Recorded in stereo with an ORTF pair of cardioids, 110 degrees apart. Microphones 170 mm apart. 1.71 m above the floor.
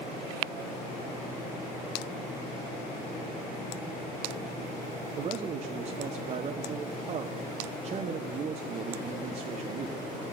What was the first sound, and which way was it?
A man speaking, 40° right.